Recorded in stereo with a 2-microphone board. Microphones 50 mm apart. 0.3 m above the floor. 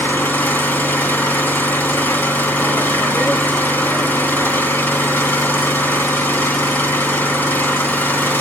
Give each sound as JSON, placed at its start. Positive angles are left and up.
{"t": 0.0, "sound": "an engine running", "side_deg": 45, "distance_m": 1.8}